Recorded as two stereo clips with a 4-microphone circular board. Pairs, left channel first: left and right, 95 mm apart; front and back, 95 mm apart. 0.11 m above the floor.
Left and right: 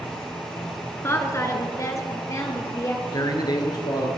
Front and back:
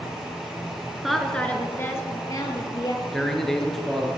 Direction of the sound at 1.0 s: 95° left.